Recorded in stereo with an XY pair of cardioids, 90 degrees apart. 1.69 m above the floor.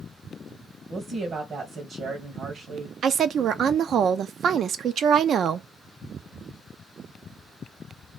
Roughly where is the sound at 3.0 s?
Ahead right.